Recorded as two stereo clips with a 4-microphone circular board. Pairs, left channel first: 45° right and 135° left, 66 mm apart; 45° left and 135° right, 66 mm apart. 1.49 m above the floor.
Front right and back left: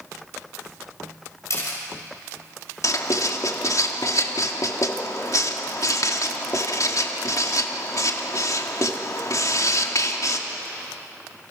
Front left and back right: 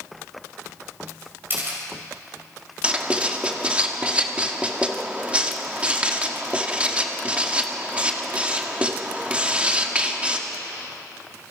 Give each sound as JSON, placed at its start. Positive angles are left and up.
{"t": 1.5, "sound": "a camera shutter", "azimuth_deg": -80, "distance_m": 6.5}
{"t": 2.8, "sound": "writing", "azimuth_deg": -65, "distance_m": 1.8}